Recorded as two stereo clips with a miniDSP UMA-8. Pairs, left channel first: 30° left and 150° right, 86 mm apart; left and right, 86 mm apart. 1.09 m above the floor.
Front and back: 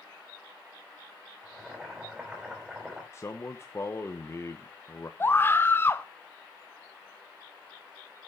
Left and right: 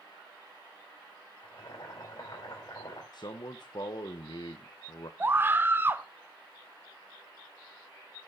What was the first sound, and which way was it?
Boiling, 130° left.